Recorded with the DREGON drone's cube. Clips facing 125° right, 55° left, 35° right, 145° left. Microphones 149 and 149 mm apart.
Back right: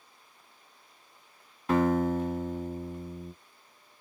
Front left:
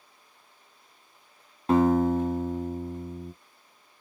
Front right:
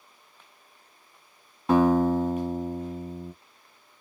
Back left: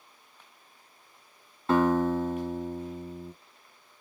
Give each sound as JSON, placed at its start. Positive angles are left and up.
{"t": 1.7, "sound": "a guitar", "azimuth_deg": 30, "distance_m": 1.4}